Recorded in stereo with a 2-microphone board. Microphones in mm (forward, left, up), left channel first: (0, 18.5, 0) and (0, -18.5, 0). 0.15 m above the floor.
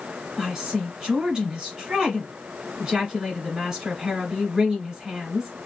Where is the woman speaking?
15° right (ahead or behind), 1.3 m.